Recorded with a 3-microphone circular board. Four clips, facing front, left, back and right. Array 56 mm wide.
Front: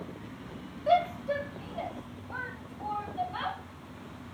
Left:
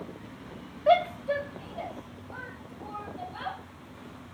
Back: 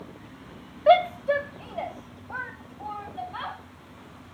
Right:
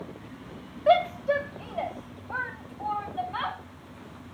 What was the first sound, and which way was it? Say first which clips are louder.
A shout: right 1 dB, back 7 dB; 170° right.